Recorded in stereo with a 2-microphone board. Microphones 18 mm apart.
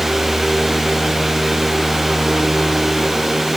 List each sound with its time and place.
Only background noise.